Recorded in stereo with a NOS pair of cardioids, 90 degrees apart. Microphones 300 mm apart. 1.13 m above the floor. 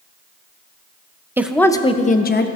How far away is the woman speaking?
About 0.5 m.